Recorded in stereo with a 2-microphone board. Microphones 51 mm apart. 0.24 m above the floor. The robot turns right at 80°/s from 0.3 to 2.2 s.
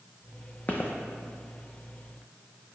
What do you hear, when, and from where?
0.7 s footsteps: 35° left (ahead or behind), 0.5 m; by 0.9 s 50° left (ahead or behind), 0.5 m